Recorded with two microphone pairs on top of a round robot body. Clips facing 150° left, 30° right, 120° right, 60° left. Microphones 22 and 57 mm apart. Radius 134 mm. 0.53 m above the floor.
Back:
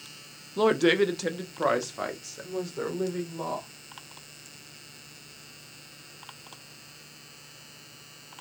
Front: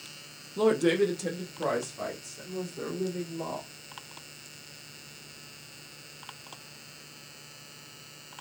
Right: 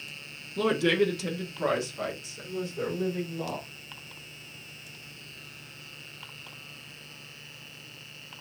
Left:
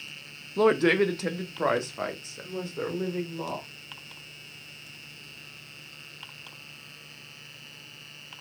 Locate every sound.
0.6 s a woman speaking: 90° left, 1.2 m; by 3.7 s 110° left, 3 m